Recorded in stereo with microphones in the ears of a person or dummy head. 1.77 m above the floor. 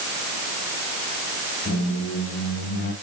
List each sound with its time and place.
1.6 s a squeak: 55° left (ahead or behind), 9.5 m